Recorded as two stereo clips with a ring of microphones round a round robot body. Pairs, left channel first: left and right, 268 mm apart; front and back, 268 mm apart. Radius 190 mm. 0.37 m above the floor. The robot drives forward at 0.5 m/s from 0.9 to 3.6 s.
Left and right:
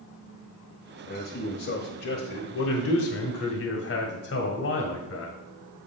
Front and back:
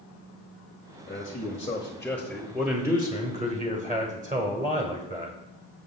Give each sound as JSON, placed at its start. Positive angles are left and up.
{"t": 1.1, "sound": "a man speaking", "azimuth_deg": 55, "distance_m": 1.4}